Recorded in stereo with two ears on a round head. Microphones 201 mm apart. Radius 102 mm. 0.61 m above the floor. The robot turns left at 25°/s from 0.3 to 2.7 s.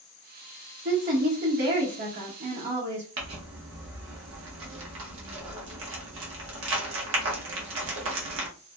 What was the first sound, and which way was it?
A woman speaking, 45° right.